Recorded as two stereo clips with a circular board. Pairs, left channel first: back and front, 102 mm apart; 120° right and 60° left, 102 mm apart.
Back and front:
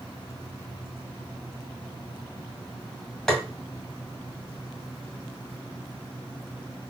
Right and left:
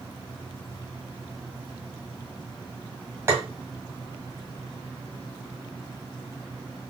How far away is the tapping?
About 1.7 m.